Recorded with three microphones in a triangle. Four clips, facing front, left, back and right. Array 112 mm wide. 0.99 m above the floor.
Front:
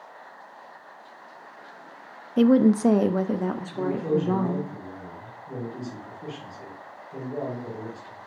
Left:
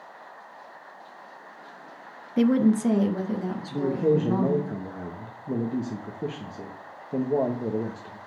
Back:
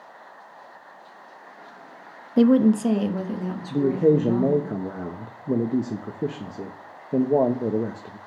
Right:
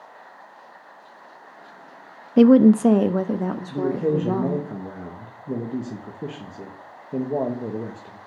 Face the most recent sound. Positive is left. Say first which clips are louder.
# even, back 8 dB
turn(degrees=180)